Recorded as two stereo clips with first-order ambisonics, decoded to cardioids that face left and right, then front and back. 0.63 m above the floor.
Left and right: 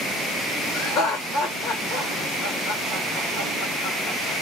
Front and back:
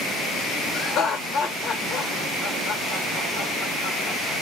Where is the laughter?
55° left, 1.7 m.